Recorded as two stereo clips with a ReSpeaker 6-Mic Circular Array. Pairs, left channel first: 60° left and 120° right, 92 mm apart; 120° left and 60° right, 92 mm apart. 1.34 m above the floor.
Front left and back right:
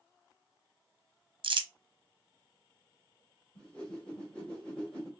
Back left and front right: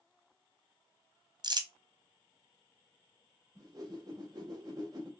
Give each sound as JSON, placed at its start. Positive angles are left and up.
{"t": 1.4, "sound": "crumpling", "azimuth_deg": -95, "distance_m": 0.7}
{"t": 3.5, "sound": "a whoosh", "azimuth_deg": -15, "distance_m": 1.7}